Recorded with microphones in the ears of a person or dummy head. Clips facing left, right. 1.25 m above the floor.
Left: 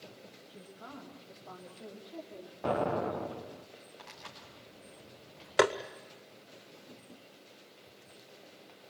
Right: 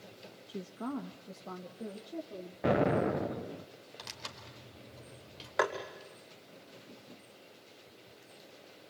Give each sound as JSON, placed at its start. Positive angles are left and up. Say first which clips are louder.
{"t": 0.5, "sound": "a woman speaking", "louder": "right 13 dB", "side_deg": -85, "distance_m": 1.3}
{"t": 2.6, "sound": "an explosion", "louder": "right 3 dB", "side_deg": -25, "distance_m": 0.6}
{"t": 4.0, "sound": "tearing paper", "louder": "right 1 dB", "side_deg": -55, "distance_m": 4.5}
{"t": 5.6, "sound": "tapping", "louder": "left 6 dB", "side_deg": 40, "distance_m": 1.1}